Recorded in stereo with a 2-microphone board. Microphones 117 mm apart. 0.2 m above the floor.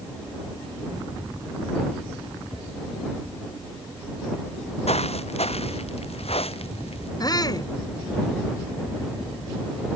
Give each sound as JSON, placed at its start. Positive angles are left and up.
{"t": 4.5, "sound": "footsteps", "side_deg": 70}
{"t": 7.2, "sound": "a shout", "side_deg": 35}